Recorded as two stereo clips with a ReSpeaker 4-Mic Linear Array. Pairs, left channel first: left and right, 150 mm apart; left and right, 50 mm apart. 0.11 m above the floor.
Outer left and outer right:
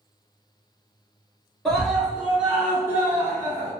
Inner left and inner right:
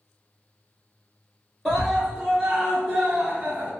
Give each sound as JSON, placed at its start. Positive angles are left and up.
{"t": 1.6, "sound": "a scream", "side_deg": 0, "distance_m": 1.9}